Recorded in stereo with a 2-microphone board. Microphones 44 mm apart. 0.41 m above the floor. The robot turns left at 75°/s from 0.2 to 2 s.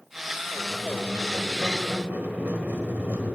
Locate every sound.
0.6 s a squeak: 45° left, 1.4 m; by 3.4 s 65° right, 1.4 m